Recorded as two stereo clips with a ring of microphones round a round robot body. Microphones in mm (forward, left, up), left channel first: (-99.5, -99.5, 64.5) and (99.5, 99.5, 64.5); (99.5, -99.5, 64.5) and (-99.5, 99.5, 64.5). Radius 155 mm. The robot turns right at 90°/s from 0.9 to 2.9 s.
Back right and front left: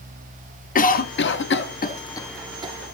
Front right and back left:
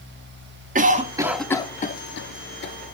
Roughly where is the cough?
Behind.